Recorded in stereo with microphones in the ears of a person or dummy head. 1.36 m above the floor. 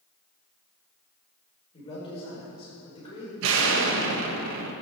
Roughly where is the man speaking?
Left.